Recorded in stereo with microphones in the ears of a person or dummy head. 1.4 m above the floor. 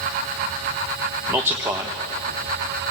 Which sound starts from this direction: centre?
A man speaking, at 1.3 s.